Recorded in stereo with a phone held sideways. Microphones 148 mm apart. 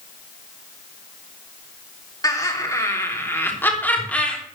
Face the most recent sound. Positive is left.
turn(degrees=5)  # may be behind; listen again after turning